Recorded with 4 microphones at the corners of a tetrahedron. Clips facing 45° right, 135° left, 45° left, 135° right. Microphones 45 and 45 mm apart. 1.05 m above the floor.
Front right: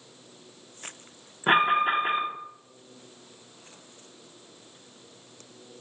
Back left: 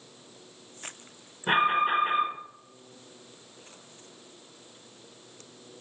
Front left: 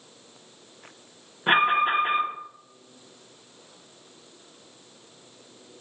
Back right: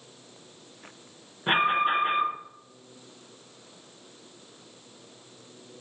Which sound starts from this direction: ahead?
An alarm, at 1.5 s.